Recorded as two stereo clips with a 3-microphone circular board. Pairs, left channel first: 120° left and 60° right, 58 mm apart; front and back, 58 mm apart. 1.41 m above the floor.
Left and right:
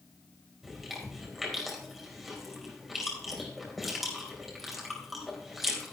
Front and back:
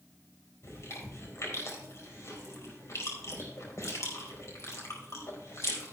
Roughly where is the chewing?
Ahead left.